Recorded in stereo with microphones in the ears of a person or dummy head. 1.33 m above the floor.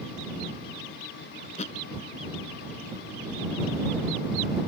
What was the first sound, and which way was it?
A thud, 35° left (ahead or behind).